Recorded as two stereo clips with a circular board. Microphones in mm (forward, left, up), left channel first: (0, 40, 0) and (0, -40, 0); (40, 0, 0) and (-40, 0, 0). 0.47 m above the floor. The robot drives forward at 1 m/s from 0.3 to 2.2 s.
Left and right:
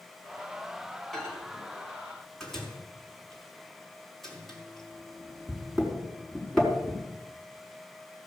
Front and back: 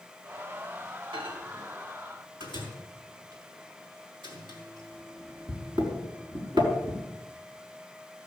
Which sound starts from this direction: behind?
A microwave, at 1.1 s.